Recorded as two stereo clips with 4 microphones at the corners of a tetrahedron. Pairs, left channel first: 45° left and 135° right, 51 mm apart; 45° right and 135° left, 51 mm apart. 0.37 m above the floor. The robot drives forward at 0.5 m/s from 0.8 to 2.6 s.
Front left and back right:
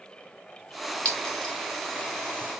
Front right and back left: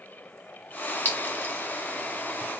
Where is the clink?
20° right, 1.4 m; by 1.5 s 25° right, 1.2 m.